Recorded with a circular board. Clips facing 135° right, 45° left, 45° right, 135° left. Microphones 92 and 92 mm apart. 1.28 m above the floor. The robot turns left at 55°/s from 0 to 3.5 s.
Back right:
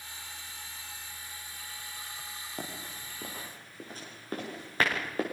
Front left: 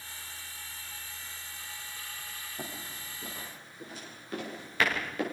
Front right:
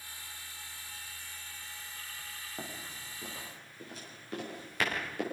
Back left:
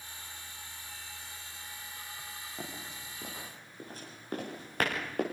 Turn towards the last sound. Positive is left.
turn(degrees=170)